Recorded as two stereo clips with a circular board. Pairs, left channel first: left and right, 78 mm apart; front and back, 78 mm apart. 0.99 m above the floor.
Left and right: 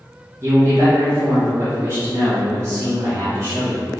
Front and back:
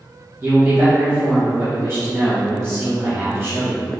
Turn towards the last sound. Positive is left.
turn(degrees=-130)